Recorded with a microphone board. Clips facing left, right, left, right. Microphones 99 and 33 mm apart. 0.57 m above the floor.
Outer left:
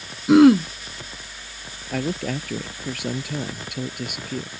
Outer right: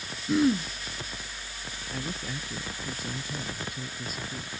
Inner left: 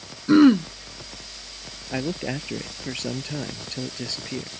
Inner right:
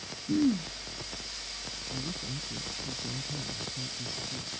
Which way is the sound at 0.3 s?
80° left.